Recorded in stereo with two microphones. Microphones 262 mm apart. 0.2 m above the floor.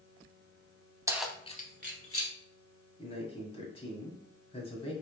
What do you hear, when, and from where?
1.1 s keys jangling: 15° right (ahead or behind), 0.8 m; by 2.3 s 60° left (ahead or behind), 1.3 m
3.0 s a man speaking: 20° left (ahead or behind), 1.4 m